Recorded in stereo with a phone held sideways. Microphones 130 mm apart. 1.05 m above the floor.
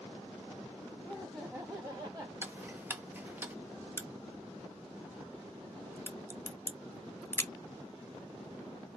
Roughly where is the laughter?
Centre.